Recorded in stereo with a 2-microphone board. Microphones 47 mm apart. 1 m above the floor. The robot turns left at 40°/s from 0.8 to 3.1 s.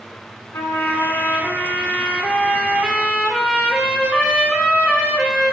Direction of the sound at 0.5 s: 75° left.